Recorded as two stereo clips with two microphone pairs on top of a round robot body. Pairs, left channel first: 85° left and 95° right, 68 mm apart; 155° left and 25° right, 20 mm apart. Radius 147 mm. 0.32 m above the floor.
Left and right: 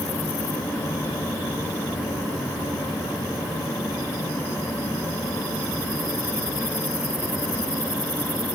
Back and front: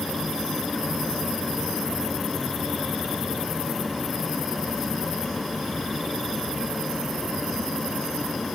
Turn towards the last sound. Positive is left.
No sound to turn to.